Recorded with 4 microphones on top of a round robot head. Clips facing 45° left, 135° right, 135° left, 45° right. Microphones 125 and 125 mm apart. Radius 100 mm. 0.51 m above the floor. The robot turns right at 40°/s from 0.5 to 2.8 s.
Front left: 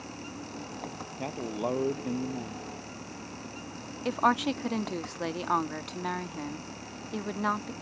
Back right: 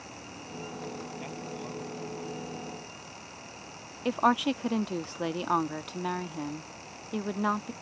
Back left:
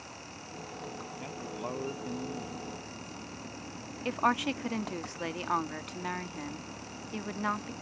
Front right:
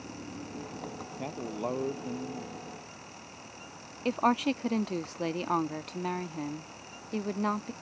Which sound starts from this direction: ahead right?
A woman speaking, at 4.0 s.